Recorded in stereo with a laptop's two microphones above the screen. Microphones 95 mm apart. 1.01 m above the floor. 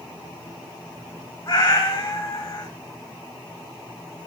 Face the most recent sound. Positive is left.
turn(degrees=35)  # may be behind; listen again after turning